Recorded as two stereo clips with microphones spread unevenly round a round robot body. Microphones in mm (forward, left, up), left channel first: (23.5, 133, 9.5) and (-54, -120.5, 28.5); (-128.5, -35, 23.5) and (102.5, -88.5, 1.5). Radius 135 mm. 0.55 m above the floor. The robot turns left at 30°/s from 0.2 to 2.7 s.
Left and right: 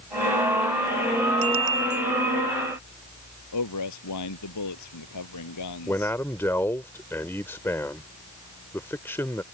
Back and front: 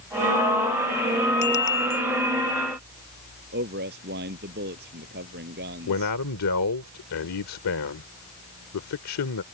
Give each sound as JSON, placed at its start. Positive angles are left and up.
{"t": 1.4, "sound": "a bicycle bell", "azimuth_deg": -145}
{"t": 3.5, "sound": "a man speaking", "azimuth_deg": 45}
{"t": 5.9, "sound": "a man speaking", "azimuth_deg": 155}